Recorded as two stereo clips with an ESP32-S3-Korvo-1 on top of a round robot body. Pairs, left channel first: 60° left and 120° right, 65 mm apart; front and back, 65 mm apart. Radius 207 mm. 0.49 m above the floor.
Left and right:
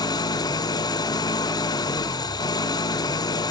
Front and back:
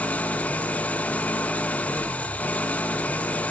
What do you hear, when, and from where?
0.0 s an engine running: 65° left, 0.8 m